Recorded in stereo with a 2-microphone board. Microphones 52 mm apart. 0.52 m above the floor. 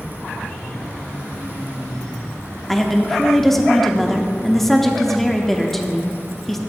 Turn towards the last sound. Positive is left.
turn(degrees=5)  # may be behind; listen again after turning